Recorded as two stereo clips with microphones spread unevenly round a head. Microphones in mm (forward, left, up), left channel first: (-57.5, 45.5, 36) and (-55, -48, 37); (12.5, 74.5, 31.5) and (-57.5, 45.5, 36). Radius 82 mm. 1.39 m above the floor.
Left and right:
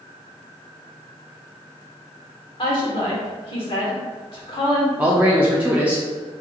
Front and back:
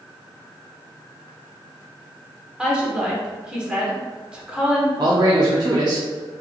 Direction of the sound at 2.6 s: 120° left.